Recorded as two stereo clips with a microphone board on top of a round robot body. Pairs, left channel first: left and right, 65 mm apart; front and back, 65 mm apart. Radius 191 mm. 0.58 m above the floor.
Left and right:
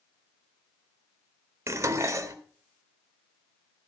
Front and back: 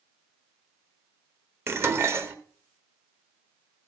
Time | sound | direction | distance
1.7 | dishes clattering | 130° right | 1.1 m